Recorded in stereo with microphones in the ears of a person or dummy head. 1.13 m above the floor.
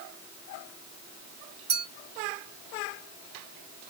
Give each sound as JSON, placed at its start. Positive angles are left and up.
{"t": 1.7, "sound": "a clink", "side_deg": -35, "distance_m": 0.6}